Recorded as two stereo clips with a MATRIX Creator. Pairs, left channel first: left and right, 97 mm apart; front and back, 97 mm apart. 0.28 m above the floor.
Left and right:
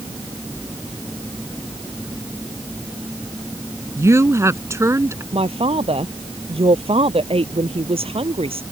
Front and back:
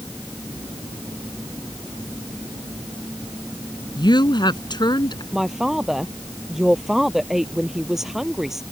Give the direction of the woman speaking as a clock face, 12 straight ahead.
1 o'clock.